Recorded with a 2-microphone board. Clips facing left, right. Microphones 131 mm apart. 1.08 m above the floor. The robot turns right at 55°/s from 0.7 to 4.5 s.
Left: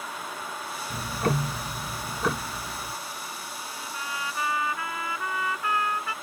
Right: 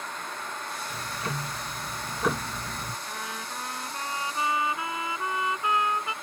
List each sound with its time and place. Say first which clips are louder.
0.9 s ticking: left 9 dB; 110° left; by 3.0 s 140° right
3.1 s a trumpet: right 2 dB; 100° right; by 6.1 s 20° right